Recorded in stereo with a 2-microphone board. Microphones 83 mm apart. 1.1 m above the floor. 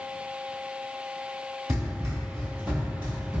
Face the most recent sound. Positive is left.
turn(degrees=-20)  # may be behind; listen again after turning